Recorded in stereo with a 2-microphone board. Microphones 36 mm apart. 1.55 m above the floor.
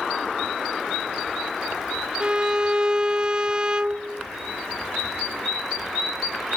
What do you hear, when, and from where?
2.2 s a violin: 20° right (ahead or behind)